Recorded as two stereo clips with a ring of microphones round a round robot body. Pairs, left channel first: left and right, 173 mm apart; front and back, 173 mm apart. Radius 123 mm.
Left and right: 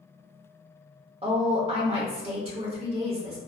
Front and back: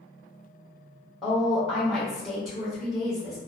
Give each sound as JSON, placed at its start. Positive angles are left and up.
{"t": 1.2, "sound": "a woman speaking", "azimuth_deg": -90, "distance_m": 0.9}